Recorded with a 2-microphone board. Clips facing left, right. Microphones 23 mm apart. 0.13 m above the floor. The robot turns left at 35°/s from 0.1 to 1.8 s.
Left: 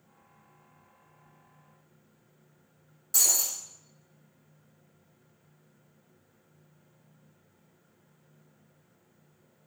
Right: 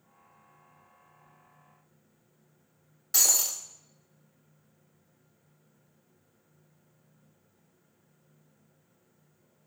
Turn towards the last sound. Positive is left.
turn(degrees=-35)  # may be behind; listen again after turning